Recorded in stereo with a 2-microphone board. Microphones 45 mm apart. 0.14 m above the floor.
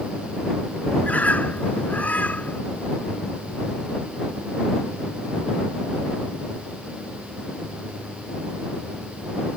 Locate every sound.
1.0 s a bird: 35° left (ahead or behind)